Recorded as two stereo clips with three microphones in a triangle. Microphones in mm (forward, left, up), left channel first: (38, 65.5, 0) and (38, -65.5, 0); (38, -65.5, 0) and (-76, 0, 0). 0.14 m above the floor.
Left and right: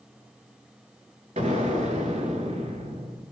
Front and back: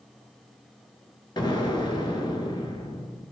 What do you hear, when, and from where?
1.4 s an explosion: 80° right, 0.6 m